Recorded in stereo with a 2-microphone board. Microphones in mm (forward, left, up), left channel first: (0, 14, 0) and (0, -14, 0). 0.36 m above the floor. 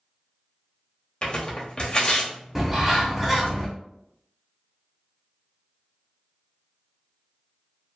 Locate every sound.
1.2 s tearing paper: 35° left (ahead or behind), 0.7 m
2.5 s a bird: 10° right (ahead or behind), 0.7 m